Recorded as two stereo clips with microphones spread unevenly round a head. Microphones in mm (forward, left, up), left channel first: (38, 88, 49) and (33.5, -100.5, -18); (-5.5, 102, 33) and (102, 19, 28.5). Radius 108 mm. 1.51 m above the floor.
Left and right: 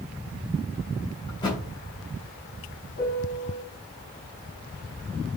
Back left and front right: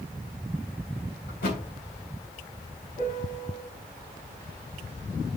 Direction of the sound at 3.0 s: 125° left.